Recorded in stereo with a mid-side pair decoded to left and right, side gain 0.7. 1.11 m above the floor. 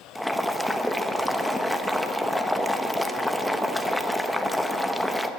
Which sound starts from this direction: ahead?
Boiling, at 0.1 s.